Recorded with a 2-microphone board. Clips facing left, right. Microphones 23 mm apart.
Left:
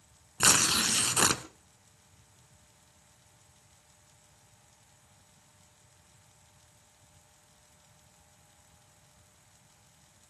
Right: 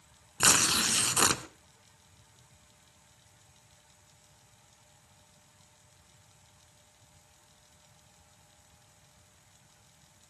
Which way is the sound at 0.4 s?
Centre (ahead or behind).